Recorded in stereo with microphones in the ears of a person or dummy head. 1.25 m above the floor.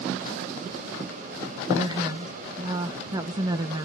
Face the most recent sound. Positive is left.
turn(degrees=-15)  # may be behind; listen again after turning